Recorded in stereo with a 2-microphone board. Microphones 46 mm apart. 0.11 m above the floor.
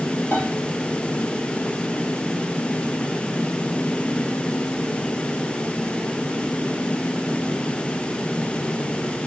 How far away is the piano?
About 3 m.